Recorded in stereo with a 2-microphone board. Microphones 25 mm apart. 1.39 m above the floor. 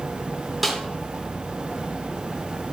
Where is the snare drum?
Centre (ahead or behind), 3 m.